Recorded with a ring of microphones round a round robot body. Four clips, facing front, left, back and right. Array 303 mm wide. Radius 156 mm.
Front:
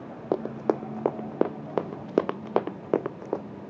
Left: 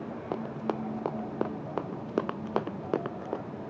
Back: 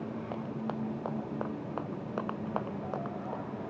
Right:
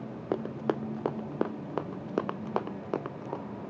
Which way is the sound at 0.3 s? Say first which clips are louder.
Right 3 dB, front 14 dB; 20° right.